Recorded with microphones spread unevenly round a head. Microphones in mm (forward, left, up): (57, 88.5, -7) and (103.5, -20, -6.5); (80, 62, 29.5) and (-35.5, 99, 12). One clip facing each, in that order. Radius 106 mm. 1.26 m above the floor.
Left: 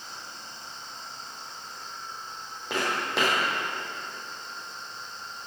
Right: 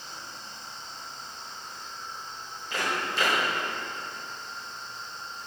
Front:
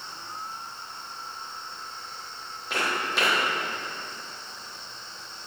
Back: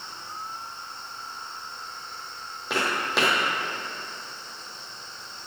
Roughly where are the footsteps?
Behind left.